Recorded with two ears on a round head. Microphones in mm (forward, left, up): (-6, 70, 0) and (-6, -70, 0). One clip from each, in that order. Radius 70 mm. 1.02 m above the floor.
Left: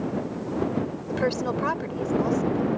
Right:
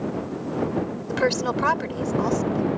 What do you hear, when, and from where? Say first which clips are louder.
1.1 s a woman speaking: right 3 dB; 35° right (ahead or behind)